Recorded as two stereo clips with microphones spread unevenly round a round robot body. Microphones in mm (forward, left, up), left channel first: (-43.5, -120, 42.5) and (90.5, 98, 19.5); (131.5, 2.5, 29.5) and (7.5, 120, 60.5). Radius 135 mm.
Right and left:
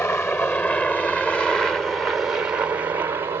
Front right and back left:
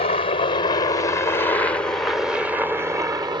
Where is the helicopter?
40° right; by 3.4 s 100° left.